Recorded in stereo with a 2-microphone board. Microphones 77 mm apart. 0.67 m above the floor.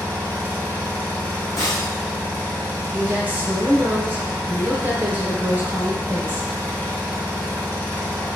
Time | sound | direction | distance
0.0 | an engine running | 20° left (ahead or behind) | 0.8 m
1.6 | breaking glass | 45° left (ahead or behind) | 1.8 m
2.9 | a woman speaking | 20° right (ahead or behind) | 0.6 m